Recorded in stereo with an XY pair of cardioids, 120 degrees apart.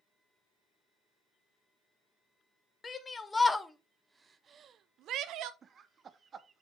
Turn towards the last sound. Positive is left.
turn(degrees=-40)